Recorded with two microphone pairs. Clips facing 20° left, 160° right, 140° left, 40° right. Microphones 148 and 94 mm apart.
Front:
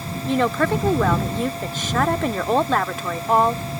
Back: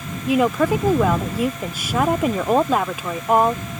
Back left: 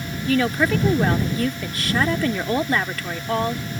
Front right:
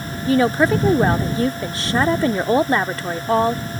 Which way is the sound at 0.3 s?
90° right.